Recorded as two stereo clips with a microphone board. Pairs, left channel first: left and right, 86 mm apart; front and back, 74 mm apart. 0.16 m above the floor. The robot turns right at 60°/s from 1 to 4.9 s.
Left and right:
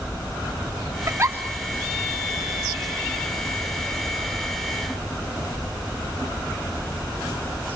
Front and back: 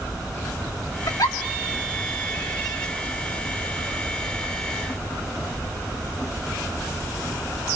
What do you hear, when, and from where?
1.1 s a giggle: 30° right, 2.5 m; by 1.4 s 15° right, 2.5 m